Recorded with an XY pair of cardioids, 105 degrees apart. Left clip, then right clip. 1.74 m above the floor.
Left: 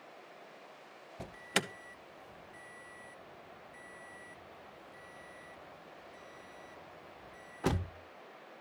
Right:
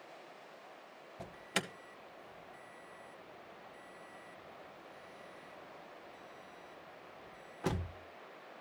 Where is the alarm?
30° left, 0.8 m.